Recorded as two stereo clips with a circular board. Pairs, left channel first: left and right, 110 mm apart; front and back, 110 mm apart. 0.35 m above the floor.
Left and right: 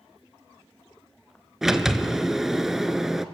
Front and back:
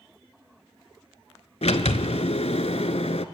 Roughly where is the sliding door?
Ahead.